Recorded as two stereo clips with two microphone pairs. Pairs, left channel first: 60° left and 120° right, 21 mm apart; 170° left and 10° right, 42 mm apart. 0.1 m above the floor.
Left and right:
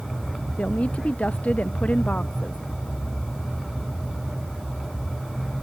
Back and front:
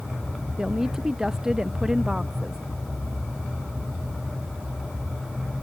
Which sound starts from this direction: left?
A woman speaking, at 0.6 s.